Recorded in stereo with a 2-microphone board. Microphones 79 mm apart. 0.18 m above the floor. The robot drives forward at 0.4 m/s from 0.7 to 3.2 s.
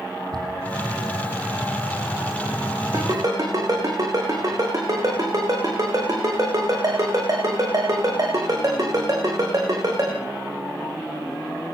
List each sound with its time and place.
0.3 s a cupboard door: 60° right (ahead or behind), 7.5 m
2.9 s a ringtone: 50° right (ahead or behind), 9 m